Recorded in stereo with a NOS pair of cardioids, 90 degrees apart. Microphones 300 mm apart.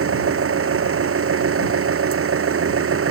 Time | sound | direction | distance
0.0 | an engine running | 45° right | ?